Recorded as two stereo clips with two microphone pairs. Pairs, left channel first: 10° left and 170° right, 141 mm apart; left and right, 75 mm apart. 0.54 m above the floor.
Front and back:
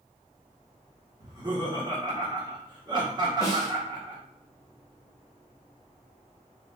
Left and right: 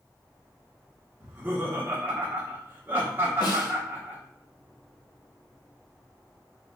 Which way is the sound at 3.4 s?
70° left.